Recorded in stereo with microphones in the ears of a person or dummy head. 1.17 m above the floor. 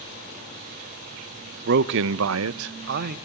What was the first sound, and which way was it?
A man speaking, 55° right (ahead or behind).